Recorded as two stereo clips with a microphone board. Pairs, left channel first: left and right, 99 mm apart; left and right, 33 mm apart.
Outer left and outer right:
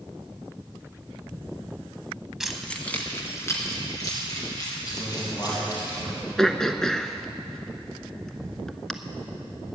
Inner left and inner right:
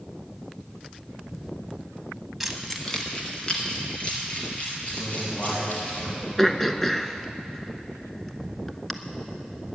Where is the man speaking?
30° left (ahead or behind), 3 m.